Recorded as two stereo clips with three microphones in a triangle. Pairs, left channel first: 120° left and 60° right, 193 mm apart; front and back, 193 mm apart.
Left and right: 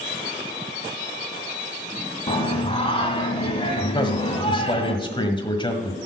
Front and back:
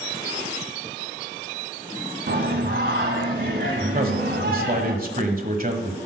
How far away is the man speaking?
About 1.4 m.